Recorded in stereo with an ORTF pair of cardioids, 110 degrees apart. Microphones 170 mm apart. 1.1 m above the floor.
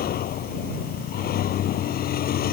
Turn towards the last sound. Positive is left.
turn(degrees=60)